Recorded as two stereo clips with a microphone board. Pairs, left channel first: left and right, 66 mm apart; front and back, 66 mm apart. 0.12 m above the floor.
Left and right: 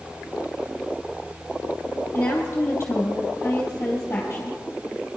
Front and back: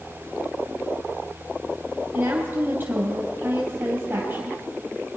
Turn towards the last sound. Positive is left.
turn(degrees=135)